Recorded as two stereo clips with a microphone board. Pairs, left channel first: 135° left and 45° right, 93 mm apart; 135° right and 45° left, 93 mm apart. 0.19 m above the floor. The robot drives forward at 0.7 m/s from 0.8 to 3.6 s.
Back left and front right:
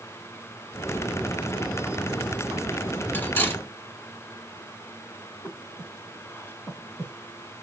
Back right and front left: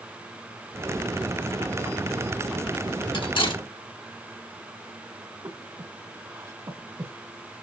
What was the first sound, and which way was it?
Cutlery clinking, 155° right.